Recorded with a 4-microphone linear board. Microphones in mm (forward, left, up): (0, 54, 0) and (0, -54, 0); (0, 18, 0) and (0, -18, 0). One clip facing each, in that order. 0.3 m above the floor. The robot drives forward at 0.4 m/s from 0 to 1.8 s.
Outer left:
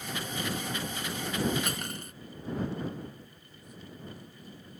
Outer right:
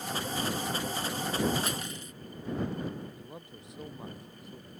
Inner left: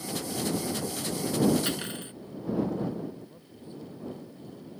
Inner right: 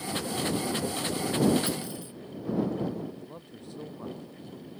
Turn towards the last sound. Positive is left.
turn(degrees=-75)  # may be behind; listen again after turning